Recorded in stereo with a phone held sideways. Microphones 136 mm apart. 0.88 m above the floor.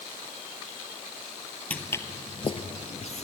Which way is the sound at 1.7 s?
10° left (ahead or behind).